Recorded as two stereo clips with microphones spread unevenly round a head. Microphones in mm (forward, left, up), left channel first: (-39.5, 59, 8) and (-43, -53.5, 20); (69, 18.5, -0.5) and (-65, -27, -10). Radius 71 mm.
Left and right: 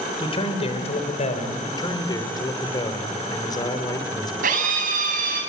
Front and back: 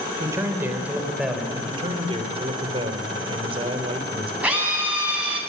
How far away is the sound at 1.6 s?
About 3 m.